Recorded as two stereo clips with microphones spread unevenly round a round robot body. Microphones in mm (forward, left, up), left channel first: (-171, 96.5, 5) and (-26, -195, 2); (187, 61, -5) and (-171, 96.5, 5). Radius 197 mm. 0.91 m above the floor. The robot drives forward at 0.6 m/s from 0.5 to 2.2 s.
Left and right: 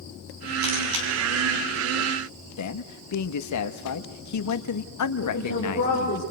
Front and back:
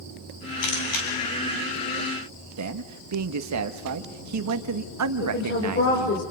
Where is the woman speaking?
50° left, 5 m.